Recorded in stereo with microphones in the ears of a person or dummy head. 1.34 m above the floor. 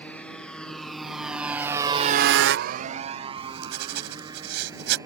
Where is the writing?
70° right (ahead or behind).